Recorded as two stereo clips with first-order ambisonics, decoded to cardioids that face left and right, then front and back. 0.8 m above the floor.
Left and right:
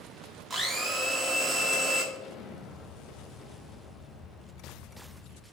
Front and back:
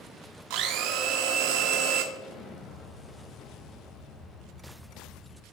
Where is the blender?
170° right, 1.1 m.